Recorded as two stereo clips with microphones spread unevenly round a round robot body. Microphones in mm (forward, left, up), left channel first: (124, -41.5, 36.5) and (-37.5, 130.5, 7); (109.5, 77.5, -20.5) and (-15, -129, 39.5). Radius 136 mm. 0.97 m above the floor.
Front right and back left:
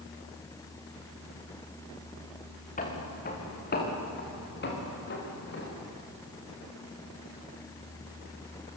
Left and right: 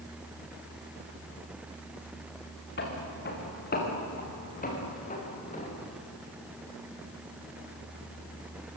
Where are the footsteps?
10° left, 6.5 m; by 5.8 s 5° right, 8.5 m.